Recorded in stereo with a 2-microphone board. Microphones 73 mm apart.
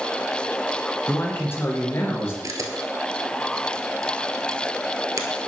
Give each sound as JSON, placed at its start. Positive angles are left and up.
{"t": 1.1, "sound": "a man speaking", "side_deg": 25, "distance_m": 1.7}
{"t": 2.4, "sound": "a camera shutter", "side_deg": -50, "distance_m": 0.9}